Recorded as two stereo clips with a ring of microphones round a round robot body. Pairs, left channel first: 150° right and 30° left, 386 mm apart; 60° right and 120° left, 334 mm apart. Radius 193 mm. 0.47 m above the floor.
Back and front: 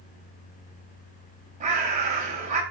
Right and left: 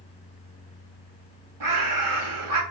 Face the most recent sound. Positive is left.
turn(degrees=100)